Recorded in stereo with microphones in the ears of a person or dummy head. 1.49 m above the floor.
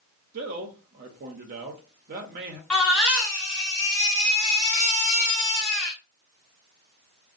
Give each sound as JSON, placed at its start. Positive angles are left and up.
{"t": 0.3, "sound": "a man speaking", "side_deg": -45, "distance_m": 0.7}
{"t": 2.7, "sound": "a baby crying", "side_deg": 5, "distance_m": 1.9}